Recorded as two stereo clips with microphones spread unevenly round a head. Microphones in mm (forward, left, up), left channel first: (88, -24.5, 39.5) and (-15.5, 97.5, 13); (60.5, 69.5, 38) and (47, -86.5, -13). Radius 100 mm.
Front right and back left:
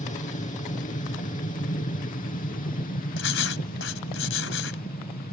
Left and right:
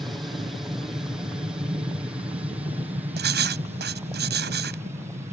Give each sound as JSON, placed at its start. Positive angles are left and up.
{"t": 0.0, "sound": "an aircraft", "azimuth_deg": -25}
{"t": 3.2, "sound": "writing", "azimuth_deg": -75}